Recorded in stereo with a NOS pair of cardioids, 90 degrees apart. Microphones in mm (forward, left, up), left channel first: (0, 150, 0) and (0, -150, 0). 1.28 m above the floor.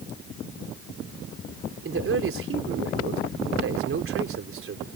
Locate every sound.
1.8 s a man speaking: 45° right